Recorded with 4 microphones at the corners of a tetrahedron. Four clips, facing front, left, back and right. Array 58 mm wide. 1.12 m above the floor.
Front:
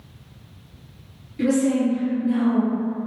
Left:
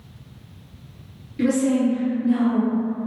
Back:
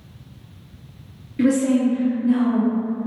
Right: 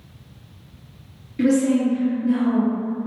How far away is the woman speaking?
About 0.5 m.